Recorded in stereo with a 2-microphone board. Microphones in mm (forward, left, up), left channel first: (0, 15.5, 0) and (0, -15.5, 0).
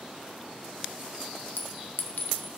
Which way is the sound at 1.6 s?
85° left.